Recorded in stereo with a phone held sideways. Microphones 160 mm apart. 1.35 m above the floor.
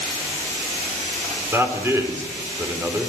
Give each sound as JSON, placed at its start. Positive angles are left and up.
{"t": 1.5, "sound": "a man speaking", "side_deg": -15, "distance_m": 4.0}